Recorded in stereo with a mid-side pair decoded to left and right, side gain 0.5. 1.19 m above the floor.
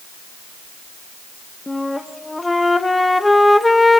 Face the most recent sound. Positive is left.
turn(degrees=10)